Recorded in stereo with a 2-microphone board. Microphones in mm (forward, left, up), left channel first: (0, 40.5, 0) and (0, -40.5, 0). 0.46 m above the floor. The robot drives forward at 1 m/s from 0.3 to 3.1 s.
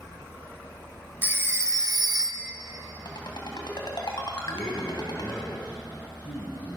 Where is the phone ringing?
25° right (ahead or behind), 1.0 m; by 2.5 s 35° right (ahead or behind), 0.7 m.